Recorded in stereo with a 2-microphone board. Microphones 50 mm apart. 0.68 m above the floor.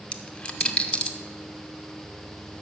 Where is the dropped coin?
25° left (ahead or behind), 0.7 m.